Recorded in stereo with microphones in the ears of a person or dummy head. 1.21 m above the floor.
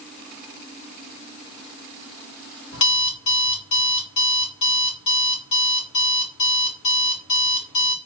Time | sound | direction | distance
2.7 | an alarm clock | 65° left (ahead or behind) | 1.6 m